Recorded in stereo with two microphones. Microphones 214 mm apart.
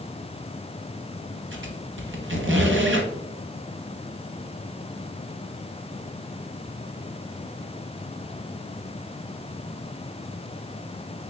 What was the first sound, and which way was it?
A squeak, 65° right (ahead or behind).